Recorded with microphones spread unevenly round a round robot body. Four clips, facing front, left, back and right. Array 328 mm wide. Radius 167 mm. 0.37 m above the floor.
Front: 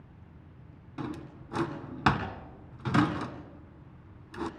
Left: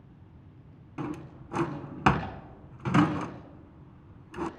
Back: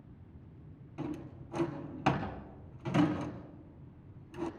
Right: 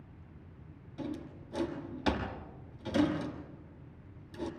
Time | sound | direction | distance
1.0 | a drawer | 50° left | 2 m